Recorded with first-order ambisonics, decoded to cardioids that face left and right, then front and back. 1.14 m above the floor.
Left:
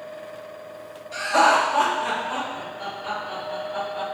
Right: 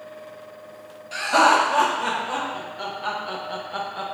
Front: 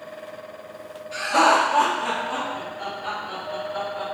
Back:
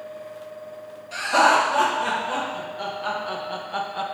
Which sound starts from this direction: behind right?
Laughter, at 1.1 s.